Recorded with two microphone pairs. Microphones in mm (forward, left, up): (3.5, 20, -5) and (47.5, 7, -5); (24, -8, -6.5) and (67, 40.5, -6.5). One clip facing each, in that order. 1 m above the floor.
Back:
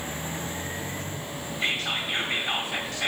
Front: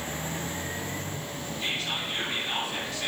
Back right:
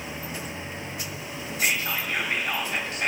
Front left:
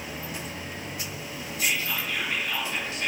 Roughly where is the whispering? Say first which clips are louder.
Back 4 dB, back right 2 dB; behind.